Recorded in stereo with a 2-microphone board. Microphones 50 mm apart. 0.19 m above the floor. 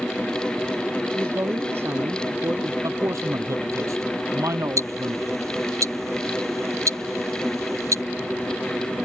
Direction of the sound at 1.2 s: 50° right (ahead or behind).